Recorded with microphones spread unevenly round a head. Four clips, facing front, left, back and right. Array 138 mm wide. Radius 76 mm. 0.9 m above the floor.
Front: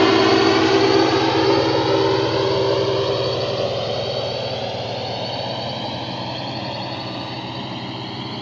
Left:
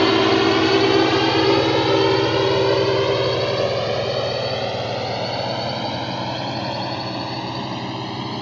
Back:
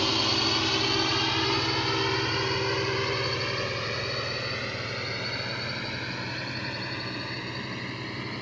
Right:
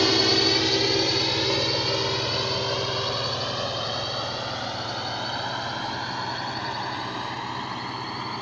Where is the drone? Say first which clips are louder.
Left 7 dB, front 15 dB; 30° left; by 8.4 s 85° left.